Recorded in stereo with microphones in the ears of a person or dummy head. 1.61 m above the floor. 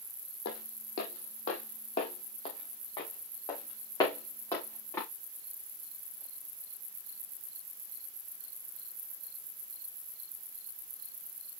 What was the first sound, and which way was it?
Footsteps, 55° left (ahead or behind).